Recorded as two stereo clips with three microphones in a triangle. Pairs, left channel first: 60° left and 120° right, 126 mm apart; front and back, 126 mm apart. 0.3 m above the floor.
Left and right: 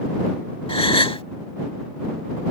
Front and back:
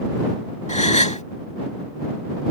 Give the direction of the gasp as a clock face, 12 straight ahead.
11 o'clock.